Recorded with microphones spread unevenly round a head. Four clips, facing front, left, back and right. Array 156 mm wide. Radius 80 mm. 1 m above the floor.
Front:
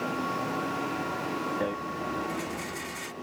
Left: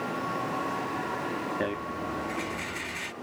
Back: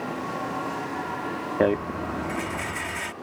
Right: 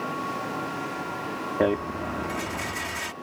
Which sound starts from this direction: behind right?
A rattle, at 1.6 s.